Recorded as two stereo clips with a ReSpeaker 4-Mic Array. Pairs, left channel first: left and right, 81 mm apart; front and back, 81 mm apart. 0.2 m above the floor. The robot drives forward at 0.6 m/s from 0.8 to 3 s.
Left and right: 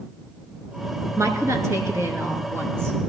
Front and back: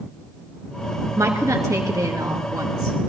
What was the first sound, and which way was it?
A woman speaking, 130° right.